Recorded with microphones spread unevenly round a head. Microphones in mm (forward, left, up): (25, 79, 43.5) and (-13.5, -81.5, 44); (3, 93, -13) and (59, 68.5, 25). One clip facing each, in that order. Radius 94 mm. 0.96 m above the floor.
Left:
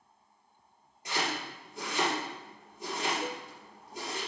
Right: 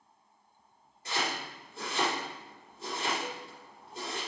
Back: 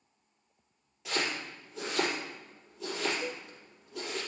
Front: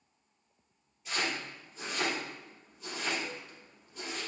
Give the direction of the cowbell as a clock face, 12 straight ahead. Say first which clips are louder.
Left 3 dB, back 3 dB; 8 o'clock.